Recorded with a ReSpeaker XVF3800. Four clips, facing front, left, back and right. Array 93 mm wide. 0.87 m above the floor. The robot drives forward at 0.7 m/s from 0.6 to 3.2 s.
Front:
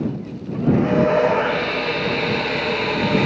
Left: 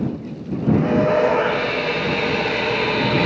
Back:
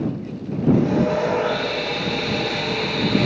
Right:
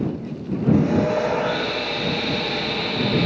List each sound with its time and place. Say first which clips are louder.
0.7 s sawing: left 3 dB, front 4 dB; 40° left, 4.5 m; by 3.2 s 60° left, 3.5 m